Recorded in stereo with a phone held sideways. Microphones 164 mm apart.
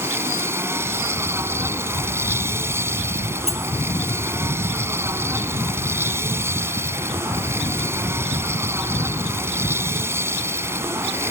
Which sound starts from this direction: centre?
A machine running, at 0.0 s.